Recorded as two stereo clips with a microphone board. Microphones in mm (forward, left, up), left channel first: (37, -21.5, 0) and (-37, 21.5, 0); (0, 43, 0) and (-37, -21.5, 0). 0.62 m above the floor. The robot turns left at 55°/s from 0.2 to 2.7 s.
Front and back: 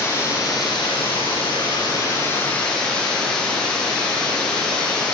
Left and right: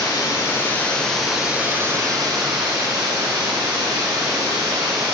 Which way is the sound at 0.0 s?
25° left.